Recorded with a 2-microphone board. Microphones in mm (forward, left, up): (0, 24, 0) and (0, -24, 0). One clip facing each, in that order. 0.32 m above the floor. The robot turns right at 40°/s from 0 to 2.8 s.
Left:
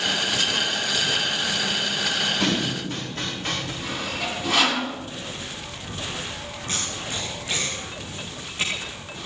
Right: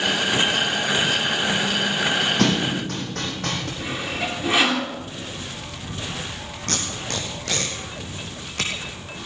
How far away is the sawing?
About 3.5 m.